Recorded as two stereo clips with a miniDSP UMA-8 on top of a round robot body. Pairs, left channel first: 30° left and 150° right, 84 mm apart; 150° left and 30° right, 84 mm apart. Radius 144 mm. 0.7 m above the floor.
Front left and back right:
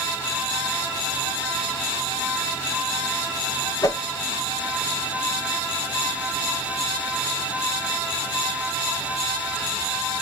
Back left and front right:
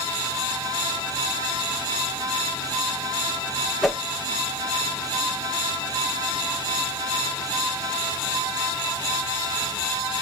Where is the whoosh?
60° left, 0.9 m.